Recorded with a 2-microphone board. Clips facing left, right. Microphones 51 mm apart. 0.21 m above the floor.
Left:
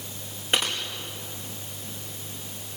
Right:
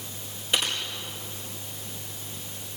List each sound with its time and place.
0.5 s typing on a keyboard: 45° left (ahead or behind), 5 m